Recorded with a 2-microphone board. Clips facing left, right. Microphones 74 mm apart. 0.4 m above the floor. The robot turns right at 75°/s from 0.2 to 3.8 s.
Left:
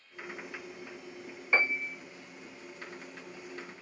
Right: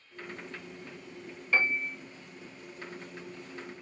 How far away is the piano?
About 0.6 m.